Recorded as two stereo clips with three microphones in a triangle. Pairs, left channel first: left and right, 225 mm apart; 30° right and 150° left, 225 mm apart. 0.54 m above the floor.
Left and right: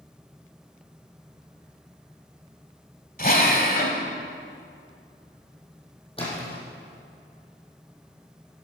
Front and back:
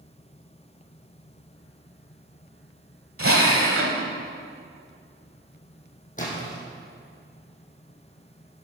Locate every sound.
3.2 s a drill: 135° left, 1.4 m
6.2 s a splash: 25° left, 3.5 m